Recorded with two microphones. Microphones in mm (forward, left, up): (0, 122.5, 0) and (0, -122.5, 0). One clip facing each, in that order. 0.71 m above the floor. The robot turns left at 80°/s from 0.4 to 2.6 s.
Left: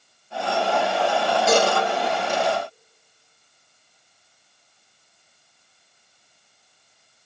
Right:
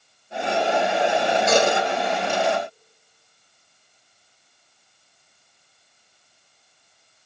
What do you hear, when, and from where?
1.5 s a cowbell: 45° left (ahead or behind), 4.5 m; by 1.7 s 30° left (ahead or behind), 4.5 m